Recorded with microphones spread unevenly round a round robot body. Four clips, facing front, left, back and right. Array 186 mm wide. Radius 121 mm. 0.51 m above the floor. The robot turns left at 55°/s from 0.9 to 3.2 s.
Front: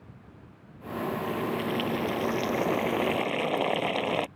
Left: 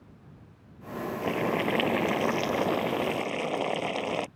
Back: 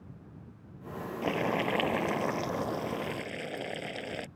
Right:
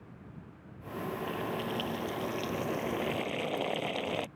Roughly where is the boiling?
Behind left.